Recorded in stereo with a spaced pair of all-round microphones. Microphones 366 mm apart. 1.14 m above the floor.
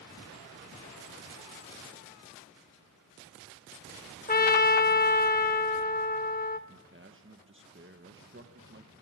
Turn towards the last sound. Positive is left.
turn(degrees=-35)  # may be behind; listen again after turning